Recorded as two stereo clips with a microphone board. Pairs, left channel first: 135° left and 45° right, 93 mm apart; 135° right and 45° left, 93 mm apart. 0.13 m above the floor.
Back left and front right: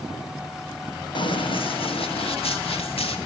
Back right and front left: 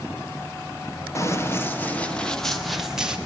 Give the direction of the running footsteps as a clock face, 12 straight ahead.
6 o'clock.